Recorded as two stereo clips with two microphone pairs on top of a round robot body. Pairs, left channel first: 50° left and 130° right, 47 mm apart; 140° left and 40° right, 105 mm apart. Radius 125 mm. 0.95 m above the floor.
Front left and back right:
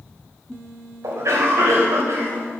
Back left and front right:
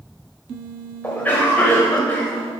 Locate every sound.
1.0 s a cough: 145° right, 5.5 m